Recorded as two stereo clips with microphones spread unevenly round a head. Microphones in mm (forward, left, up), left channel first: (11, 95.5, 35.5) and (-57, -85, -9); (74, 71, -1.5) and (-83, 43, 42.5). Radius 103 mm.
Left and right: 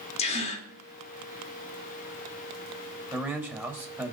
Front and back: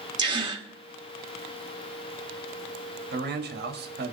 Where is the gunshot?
I don't hear a gunshot.